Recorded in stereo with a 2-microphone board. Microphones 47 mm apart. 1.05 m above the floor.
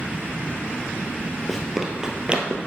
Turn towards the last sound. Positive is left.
turn(degrees=-30)  # may be behind; listen again after turning